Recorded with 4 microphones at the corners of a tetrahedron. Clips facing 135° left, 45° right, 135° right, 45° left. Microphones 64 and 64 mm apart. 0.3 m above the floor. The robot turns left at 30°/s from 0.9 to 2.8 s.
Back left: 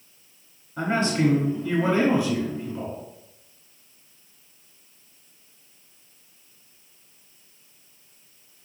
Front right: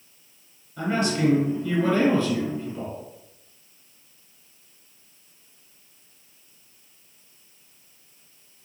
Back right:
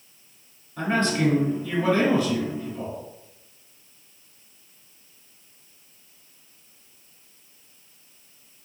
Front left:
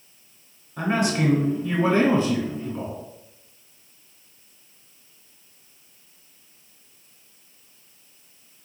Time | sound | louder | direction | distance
0.8 | a man speaking | back left 1 dB, even | 115° left | 1.2 m